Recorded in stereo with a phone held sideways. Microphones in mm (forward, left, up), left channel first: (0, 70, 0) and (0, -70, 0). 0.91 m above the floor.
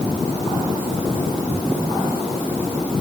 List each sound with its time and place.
Only background noise.